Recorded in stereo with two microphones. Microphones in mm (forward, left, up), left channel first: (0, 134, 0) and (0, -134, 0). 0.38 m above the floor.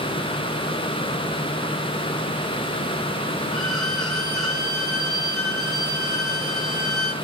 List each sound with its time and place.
3.5 s a violin: 80° left, 2.5 m